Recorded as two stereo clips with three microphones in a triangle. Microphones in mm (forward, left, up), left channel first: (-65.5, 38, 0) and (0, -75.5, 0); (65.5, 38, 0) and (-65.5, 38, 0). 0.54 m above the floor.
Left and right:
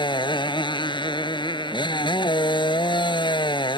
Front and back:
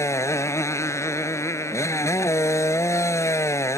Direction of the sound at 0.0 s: 70° left.